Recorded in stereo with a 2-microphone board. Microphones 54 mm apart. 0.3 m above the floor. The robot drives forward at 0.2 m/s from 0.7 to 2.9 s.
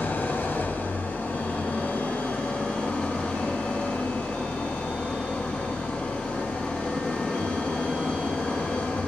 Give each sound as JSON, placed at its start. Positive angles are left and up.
{"t": 0.0, "sound": "an engine running", "side_deg": 40, "distance_m": 0.8}